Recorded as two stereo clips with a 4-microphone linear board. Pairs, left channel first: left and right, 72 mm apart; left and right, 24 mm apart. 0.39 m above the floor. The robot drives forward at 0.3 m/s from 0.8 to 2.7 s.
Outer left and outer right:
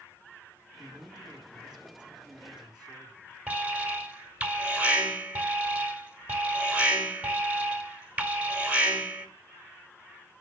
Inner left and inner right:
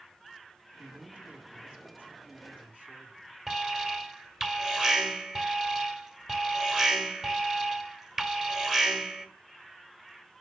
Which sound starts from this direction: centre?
An alarm, at 3.5 s.